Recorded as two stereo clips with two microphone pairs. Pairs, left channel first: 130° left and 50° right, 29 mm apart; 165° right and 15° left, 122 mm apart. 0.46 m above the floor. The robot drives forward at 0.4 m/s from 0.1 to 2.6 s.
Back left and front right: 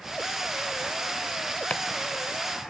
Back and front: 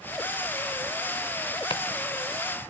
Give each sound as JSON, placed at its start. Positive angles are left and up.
{"t": 1.7, "sound": "chopping", "azimuth_deg": 155, "distance_m": 1.1}